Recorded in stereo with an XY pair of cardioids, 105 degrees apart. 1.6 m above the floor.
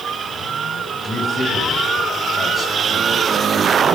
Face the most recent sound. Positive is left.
turn(degrees=30)